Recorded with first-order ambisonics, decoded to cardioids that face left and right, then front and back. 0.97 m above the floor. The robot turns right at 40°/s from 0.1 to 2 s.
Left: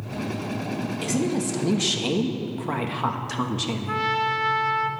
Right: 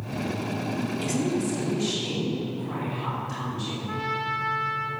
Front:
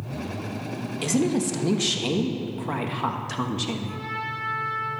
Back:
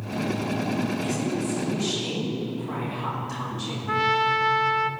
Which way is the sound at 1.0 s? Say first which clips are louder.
Left 2 dB, front 3 dB; 10° left.